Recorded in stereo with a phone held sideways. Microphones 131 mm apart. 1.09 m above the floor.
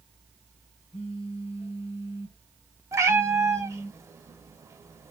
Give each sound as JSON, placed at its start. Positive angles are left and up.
{"t": 0.9, "sound": "a phone buzzing", "side_deg": 50, "distance_m": 1.1}
{"t": 2.9, "sound": "a cat meowing", "side_deg": -20, "distance_m": 0.9}